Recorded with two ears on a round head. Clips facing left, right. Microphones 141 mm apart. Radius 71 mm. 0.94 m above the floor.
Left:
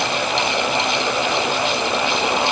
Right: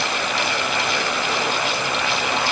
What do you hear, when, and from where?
Only background noise.